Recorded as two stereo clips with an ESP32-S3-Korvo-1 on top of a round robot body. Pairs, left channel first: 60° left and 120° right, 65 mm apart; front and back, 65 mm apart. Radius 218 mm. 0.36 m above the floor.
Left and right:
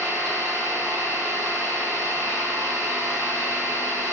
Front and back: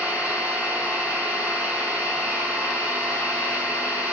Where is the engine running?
145° left, 1.2 m.